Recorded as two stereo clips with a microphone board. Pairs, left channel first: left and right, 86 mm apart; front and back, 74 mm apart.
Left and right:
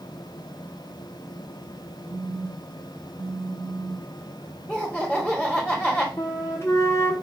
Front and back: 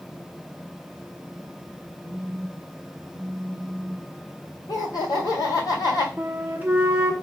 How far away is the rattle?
I don't hear a rattle.